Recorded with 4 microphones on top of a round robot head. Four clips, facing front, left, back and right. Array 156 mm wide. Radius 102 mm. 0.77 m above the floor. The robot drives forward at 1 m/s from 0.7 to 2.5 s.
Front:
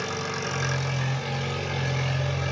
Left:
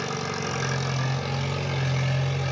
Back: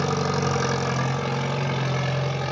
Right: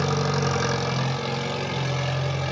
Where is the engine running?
145° right, 1.0 m; by 2.5 s 170° right, 2.5 m.